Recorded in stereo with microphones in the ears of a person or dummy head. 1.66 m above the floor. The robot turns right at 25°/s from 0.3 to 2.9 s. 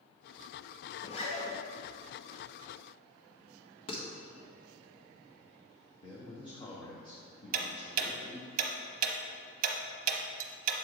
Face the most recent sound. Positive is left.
turn(degrees=-40)  # may be behind; listen again after turning